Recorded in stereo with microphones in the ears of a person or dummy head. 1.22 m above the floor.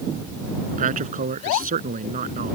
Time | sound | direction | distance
0.7 | a man speaking | 40° right (ahead or behind) | ?